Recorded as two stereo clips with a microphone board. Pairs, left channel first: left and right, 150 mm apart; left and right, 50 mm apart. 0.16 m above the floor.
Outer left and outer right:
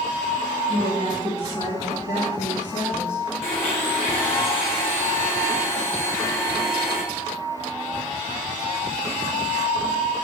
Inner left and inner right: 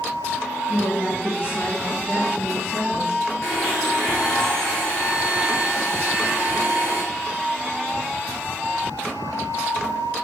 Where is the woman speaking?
30° left (ahead or behind), 1.3 m; by 3.2 s 55° left (ahead or behind), 2.5 m.